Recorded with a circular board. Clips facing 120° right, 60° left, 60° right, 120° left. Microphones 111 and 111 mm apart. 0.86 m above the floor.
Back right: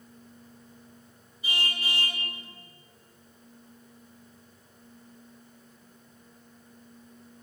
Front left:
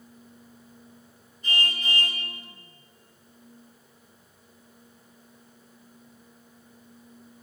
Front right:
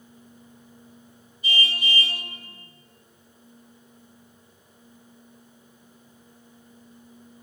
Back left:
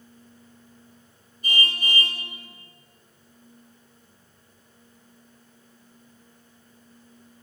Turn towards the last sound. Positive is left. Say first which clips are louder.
# front left 3 dB, even
turn(degrees=160)